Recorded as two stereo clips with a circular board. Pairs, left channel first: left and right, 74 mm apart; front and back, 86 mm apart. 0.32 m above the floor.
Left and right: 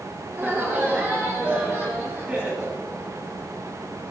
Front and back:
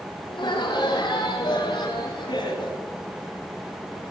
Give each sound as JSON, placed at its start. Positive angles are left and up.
{"t": 0.3, "sound": "laughter", "azimuth_deg": -15, "distance_m": 6.0}